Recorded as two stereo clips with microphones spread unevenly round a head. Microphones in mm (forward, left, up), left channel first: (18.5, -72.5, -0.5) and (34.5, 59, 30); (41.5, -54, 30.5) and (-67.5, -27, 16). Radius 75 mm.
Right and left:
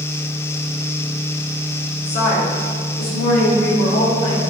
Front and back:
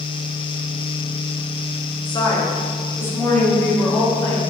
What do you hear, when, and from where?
2.0 s a woman speaking: 60° right, 2.0 m; by 4.4 s 90° right, 5 m